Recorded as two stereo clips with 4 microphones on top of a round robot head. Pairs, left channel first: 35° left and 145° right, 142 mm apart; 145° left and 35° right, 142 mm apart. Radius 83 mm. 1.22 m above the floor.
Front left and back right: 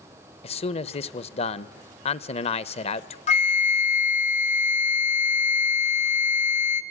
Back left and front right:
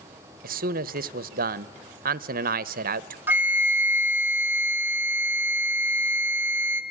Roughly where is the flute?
Ahead left.